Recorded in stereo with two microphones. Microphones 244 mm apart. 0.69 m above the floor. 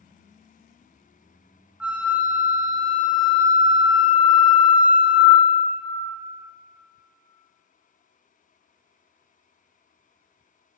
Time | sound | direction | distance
1.8 | a flute | 5° right (ahead or behind) | 0.5 m